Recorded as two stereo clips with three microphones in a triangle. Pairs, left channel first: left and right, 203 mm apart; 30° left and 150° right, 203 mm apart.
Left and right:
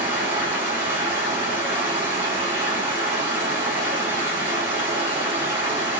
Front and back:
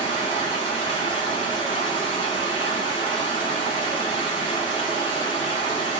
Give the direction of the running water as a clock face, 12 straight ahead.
1 o'clock.